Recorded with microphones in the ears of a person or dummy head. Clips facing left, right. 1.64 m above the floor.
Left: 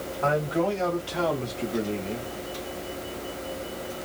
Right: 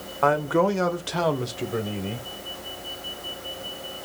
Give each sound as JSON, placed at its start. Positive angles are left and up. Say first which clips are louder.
{"t": 0.2, "sound": "a man speaking", "louder": "right 4 dB", "side_deg": -65, "distance_m": 1.1}